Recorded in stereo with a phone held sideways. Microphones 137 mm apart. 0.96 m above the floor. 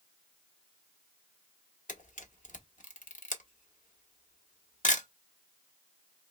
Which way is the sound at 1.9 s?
70° left (ahead or behind).